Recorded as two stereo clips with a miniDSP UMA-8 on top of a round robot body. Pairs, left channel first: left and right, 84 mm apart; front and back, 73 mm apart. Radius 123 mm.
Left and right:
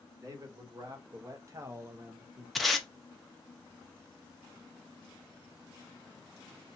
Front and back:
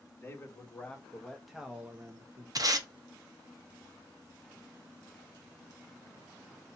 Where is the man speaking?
50° right, 1.4 m; by 2.5 s 155° right, 1.0 m.